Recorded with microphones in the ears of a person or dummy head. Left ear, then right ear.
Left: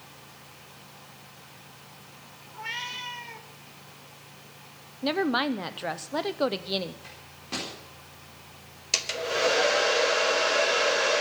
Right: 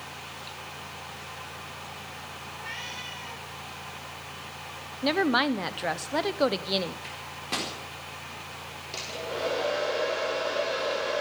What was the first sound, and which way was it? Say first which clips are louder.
A cat meowing: left 4 dB; 40° left (ahead or behind).